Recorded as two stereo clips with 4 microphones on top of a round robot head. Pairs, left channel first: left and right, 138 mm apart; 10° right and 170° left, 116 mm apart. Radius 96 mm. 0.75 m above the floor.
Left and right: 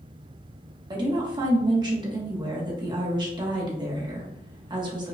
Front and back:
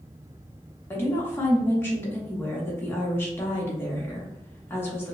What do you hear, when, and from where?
0.9 s a woman speaking: 65° right, 1.0 m